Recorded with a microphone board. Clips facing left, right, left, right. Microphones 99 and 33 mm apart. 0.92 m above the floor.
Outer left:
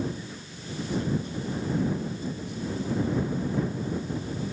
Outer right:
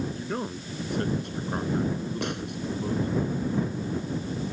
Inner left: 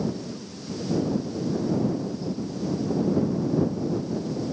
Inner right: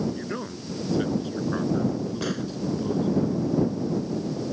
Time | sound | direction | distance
0.1 | a man speaking | 65° right (ahead or behind) | ?
2.2 | a gunshot | 85° right | ?